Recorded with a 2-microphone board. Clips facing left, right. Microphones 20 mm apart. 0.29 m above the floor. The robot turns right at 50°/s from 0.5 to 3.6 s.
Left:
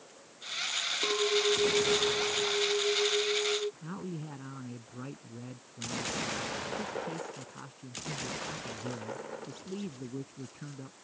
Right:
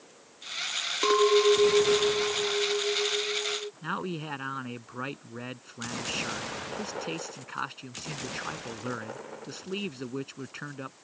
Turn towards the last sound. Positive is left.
turn(degrees=-60)  # may be behind; listen again after turning